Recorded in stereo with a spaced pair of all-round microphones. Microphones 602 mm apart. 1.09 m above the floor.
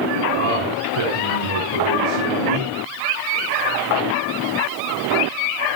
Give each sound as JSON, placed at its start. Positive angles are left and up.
{"t": 0.4, "sound": "a man speaking", "side_deg": -65, "distance_m": 5.0}